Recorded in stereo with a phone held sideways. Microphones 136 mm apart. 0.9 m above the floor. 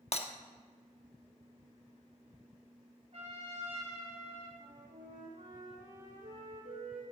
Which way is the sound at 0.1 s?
50° left (ahead or behind).